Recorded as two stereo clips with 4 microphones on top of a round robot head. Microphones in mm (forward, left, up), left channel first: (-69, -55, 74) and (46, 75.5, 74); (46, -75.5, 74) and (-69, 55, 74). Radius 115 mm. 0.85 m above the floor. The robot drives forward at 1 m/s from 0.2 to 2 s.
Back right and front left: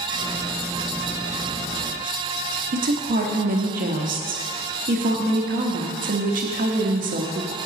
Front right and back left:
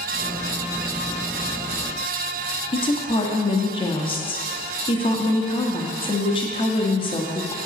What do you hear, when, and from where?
2.7 s a woman speaking: 10° left, 1.0 m